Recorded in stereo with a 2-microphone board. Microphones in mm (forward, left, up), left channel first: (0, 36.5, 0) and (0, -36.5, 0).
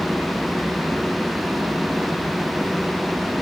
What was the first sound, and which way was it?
Only background noise.